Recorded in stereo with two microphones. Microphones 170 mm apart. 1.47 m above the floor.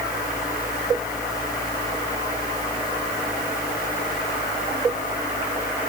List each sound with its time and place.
Only background noise.